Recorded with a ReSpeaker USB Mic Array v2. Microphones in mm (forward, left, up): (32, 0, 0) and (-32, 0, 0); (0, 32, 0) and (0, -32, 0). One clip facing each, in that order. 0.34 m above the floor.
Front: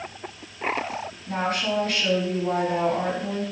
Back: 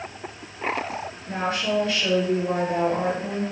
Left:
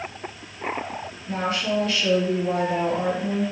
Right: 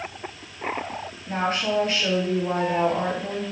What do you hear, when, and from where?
1.3 s a woman speaking: 35° right, 2 m